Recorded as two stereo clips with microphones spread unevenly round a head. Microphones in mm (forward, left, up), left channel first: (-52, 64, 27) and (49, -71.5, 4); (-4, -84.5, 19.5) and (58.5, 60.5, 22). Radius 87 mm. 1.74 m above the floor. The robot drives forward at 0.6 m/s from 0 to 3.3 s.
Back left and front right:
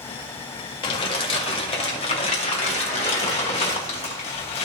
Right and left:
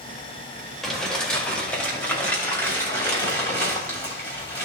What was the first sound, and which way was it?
Crumpling, 160° left.